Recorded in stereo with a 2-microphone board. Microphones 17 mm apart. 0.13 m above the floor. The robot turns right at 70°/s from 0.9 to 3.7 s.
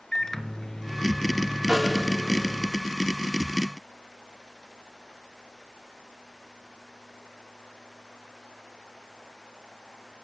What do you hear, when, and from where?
0.1 s a microwave: 45° left, 1.5 m; by 2.7 s 170° left, 1.5 m
1.7 s a snare drum: 50° right (ahead or behind), 8.5 m; by 2.0 s 25° right (ahead or behind), 8.5 m